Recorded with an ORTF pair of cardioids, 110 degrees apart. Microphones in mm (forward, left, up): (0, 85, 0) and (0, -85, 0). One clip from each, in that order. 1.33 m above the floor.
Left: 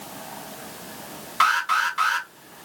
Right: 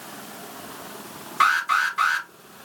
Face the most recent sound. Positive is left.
turn(degrees=15)